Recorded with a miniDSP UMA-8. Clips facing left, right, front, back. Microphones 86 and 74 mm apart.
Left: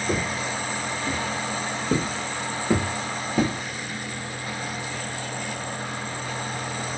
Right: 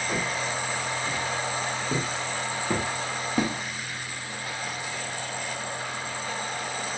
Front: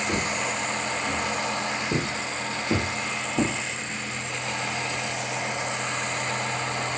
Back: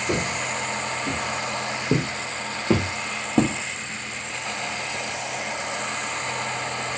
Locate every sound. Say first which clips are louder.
0.1 s footsteps: left 3 dB, back 4 dB; 135° left, 4 m; by 3.5 s straight behind, 3 m